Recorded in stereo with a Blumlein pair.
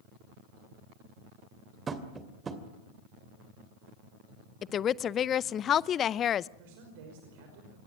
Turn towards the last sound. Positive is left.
turn(degrees=-50)